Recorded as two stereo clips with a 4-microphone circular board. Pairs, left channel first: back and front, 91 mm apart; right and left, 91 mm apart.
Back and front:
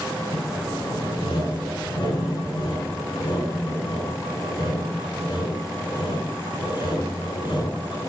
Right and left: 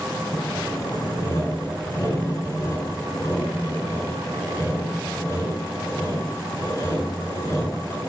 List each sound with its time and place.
0.3 s sawing: 150° right, 5.5 m